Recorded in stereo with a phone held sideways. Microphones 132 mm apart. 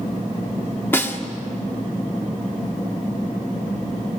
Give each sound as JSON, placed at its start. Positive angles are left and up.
{"t": 0.9, "sound": "a snare drum", "side_deg": 15, "distance_m": 1.8}